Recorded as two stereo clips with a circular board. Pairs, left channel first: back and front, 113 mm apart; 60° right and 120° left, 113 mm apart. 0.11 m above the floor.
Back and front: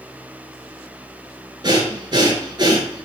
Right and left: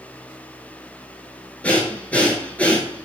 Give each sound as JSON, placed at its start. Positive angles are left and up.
{"t": 1.6, "sound": "breathing", "azimuth_deg": 10, "distance_m": 0.8}